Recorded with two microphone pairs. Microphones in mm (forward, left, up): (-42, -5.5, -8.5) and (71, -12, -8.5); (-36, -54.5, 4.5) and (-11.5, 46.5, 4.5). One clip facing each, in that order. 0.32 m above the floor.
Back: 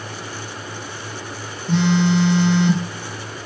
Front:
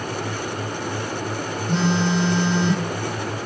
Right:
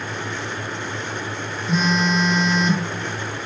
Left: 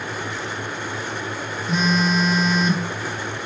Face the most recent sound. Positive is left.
turn(degrees=165)